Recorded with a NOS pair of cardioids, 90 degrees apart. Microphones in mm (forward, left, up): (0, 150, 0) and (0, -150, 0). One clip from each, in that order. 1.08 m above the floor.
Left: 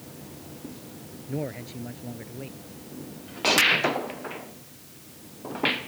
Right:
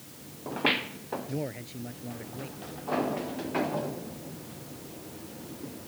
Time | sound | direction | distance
1.3 | a man speaking | 10° left | ?